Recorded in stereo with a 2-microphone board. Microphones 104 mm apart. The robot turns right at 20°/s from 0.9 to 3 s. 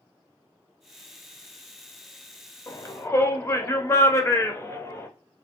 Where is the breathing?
No breathing in this recording.